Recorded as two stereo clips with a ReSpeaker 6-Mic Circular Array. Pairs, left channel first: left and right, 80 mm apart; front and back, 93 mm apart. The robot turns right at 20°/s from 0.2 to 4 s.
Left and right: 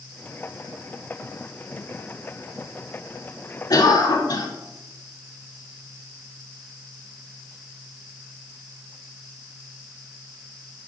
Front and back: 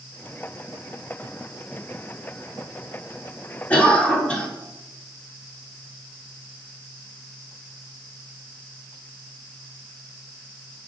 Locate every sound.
3.7 s a cough: 70° left, 1.5 m; by 4.5 s 75° left, 1.5 m